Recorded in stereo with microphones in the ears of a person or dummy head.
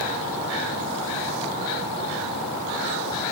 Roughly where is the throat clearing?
No throat clearing in this recording.